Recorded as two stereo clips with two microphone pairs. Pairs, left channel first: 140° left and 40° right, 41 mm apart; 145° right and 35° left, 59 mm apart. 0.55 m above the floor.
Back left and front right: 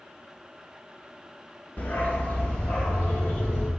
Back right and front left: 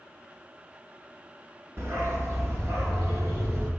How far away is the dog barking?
About 2 m.